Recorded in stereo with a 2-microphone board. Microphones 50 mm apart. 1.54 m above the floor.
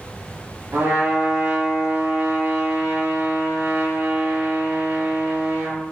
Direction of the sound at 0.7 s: 65° right (ahead or behind).